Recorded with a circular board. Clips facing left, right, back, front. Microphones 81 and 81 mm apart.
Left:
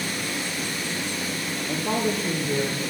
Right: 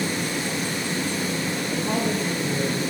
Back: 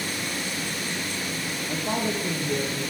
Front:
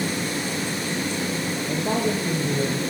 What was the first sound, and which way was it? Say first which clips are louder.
A woman speaking: left 1 dB, front 3 dB; 30° left.